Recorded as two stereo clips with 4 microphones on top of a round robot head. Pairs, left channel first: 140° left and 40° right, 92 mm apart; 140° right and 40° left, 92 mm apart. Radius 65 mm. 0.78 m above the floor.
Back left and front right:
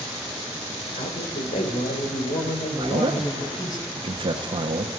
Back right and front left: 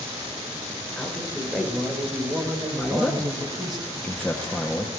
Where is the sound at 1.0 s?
140° left, 3 m; by 3.8 s 90° left, 4.5 m.